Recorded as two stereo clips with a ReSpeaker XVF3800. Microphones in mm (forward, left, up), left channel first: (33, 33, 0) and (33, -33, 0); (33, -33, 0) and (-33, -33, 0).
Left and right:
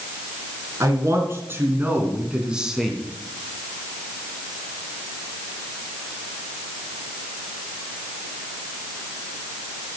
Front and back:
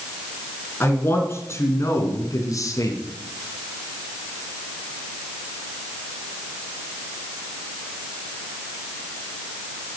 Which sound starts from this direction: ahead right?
A man speaking, at 0.8 s.